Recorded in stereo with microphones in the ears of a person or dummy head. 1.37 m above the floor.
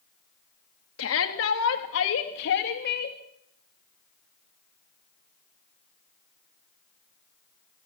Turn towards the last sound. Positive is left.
turn(degrees=55)  # may be behind; listen again after turning